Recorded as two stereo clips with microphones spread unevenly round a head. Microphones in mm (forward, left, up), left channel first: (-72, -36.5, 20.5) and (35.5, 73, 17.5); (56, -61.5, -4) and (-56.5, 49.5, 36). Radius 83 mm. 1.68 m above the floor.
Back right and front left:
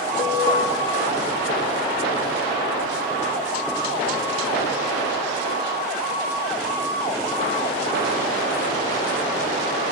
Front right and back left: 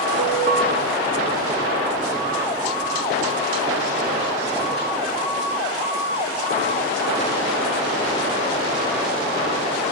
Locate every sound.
0.2 s an alarm: 165° left, 4.5 m